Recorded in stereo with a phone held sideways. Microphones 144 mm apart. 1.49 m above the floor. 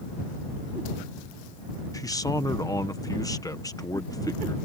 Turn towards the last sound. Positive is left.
turn(degrees=25)  # may be behind; listen again after turning